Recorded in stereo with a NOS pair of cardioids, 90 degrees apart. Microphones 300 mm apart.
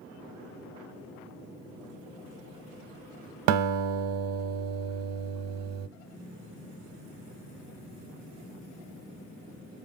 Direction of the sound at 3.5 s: 65° right.